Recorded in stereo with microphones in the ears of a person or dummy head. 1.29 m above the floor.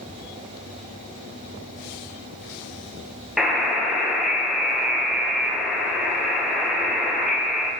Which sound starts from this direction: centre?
A buzzer, at 3.4 s.